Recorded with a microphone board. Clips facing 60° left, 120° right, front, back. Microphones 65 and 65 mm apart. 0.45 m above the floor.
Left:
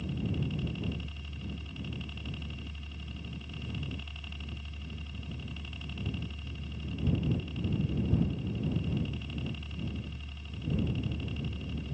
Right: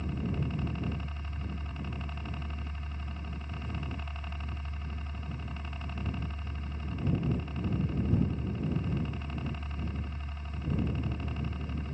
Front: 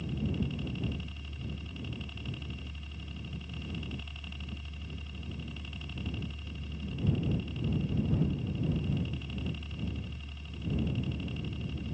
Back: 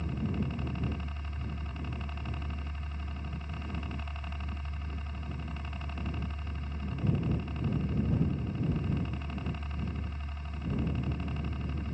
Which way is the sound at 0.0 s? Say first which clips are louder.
Even, even; 150° right.